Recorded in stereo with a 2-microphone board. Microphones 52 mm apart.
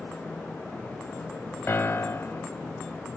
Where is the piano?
45° left (ahead or behind), 0.5 m.